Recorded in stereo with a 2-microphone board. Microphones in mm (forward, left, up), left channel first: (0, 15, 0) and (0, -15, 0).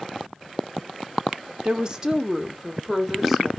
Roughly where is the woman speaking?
Right.